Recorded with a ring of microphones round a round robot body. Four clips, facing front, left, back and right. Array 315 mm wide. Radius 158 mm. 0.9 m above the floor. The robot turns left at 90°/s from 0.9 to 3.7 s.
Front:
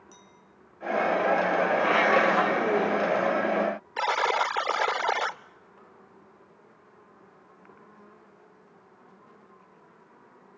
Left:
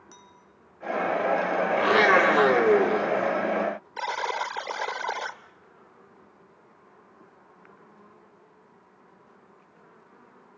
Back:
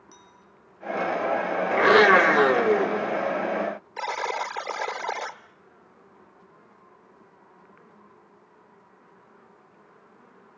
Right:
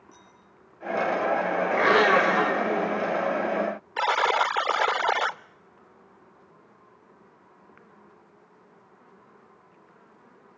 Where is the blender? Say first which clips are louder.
Even, back 9 dB; 160° right, 3.5 m; by 3.4 s 55° left, 3.5 m.